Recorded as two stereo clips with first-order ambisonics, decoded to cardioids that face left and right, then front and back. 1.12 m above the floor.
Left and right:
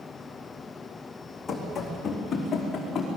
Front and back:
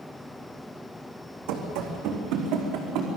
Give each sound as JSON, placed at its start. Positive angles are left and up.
{"t": 1.5, "sound": "running footsteps", "azimuth_deg": 165, "distance_m": 4.0}